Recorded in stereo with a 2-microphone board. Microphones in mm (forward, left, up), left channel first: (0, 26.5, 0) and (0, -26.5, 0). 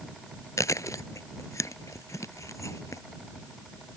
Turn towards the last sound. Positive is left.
turn(degrees=75)  # may be behind; listen again after turning